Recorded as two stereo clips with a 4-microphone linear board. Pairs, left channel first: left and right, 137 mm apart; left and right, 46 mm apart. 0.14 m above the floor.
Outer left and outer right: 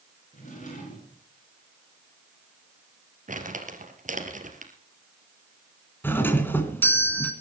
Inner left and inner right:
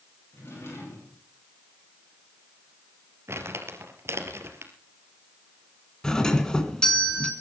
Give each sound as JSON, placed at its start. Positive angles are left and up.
{"t": 0.3, "sound": "a drawer", "side_deg": 60, "distance_m": 9.5}
{"t": 3.3, "sound": "crumpling", "side_deg": -60, "distance_m": 3.0}
{"t": 6.0, "sound": "a doorbell", "side_deg": 15, "distance_m": 2.0}